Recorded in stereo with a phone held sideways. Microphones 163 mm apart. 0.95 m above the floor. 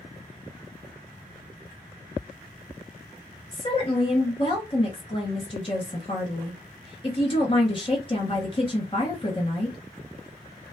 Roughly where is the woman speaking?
Left.